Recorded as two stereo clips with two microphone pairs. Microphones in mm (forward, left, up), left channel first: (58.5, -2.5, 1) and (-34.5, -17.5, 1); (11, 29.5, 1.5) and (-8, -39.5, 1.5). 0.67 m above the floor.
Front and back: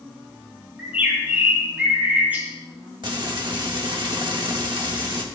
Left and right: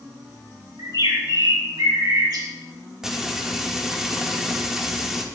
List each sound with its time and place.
0.8 s a bird: 95° right, 3.5 m
3.0 s frying: 170° left, 1.6 m